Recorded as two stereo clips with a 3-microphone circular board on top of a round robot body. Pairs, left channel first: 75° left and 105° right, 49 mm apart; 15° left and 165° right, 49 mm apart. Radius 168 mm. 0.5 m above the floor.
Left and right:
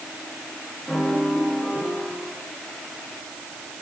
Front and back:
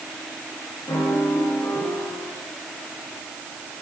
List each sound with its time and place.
0.9 s a piano: straight ahead, 8 m